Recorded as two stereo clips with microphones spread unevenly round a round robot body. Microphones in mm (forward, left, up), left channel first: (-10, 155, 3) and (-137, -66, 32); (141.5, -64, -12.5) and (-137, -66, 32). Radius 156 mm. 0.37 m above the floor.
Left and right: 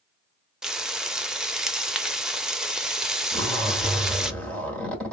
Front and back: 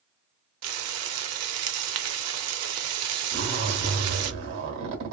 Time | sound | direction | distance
0.6 | frying | 145° left | 0.5 m
3.3 | a zipper | 140° left | 1.4 m